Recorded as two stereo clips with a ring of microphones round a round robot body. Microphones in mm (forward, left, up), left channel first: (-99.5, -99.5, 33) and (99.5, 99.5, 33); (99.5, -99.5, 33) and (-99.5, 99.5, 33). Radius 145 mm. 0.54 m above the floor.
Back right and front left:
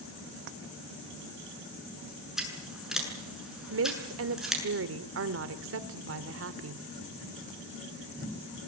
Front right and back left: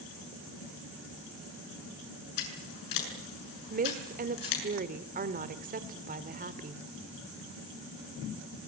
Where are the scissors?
45° right, 7.5 m.